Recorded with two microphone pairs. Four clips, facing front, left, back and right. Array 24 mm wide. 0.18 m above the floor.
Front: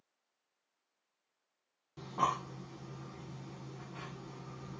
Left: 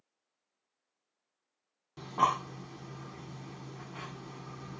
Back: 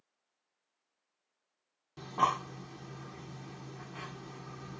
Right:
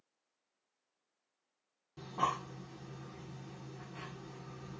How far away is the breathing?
About 0.8 m.